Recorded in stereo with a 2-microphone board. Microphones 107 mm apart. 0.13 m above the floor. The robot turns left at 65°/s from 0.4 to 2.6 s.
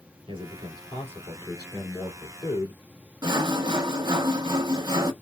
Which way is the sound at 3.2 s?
45° right (ahead or behind).